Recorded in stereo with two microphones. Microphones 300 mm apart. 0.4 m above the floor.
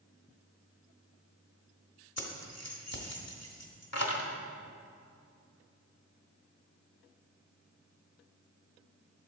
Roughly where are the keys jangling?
Left.